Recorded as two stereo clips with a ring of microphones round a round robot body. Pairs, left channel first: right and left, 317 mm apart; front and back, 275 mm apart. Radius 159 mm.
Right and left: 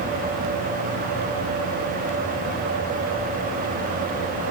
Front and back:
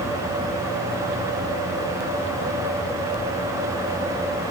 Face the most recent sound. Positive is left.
No sound to turn to.